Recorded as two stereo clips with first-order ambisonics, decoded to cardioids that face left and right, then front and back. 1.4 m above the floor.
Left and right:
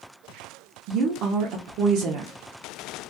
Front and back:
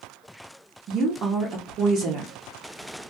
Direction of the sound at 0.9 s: 130° right.